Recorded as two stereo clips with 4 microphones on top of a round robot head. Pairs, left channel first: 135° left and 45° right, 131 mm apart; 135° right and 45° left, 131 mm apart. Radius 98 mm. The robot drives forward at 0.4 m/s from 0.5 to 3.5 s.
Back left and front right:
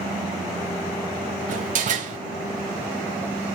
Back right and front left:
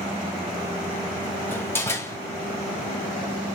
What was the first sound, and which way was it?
A door slam, 60° right.